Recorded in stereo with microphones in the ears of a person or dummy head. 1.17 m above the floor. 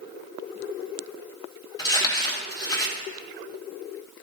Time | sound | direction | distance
1.8 | crumpling | 25° left (ahead or behind) | 1.9 m